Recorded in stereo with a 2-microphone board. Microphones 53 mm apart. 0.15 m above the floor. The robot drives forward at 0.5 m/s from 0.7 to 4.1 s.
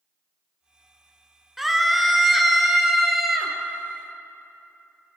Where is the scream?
5° right (ahead or behind), 1.5 m; by 3.5 s centre (ahead or behind), 2.5 m.